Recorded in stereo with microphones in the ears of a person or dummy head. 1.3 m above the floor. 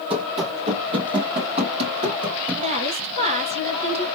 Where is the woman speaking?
35° right (ahead or behind), 1.7 m.